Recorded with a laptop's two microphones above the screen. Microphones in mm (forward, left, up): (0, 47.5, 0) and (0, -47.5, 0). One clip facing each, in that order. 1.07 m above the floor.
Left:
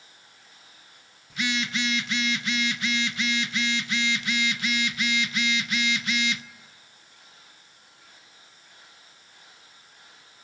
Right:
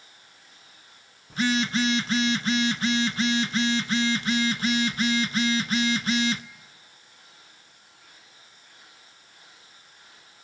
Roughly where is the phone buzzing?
Right.